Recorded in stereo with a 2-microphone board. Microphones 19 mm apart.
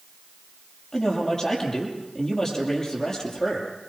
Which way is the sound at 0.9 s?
25° left (ahead or behind).